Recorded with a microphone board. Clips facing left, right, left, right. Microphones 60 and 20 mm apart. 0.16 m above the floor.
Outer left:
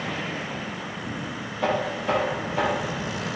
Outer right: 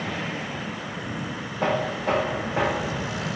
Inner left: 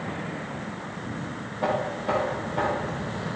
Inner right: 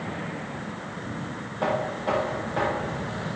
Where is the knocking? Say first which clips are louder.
Even, even; 55° right (ahead or behind), 6 m.